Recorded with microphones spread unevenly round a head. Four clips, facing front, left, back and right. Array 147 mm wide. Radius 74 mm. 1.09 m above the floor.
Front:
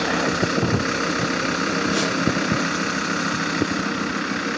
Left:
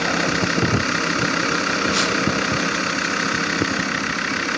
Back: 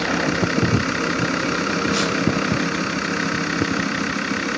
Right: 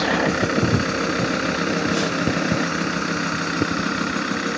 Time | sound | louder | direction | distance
1.9 | a squeak | even, back 1 dB | 95° left | 3 m